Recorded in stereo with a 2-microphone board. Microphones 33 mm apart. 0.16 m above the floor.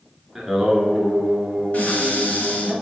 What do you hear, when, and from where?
0.3 s singing: 5° right (ahead or behind), 2 m
1.7 s a cupboard door: 45° left (ahead or behind), 2.5 m